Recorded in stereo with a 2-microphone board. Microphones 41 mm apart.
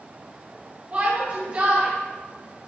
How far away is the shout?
About 1.9 m.